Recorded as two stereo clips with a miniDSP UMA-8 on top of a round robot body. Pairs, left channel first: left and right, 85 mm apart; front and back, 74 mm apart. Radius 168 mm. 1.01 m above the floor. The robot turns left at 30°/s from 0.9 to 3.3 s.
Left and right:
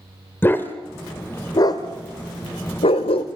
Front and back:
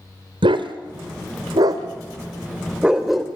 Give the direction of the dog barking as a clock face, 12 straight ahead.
7 o'clock.